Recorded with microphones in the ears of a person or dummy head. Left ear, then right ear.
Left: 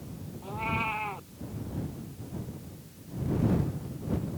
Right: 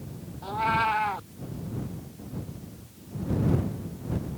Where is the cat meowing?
25° right (ahead or behind).